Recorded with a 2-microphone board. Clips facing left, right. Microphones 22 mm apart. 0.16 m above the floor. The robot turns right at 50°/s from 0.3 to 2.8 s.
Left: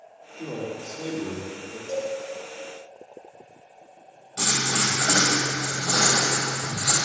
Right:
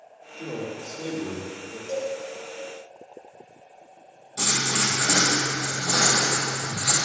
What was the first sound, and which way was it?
A man speaking, 20° left (ahead or behind).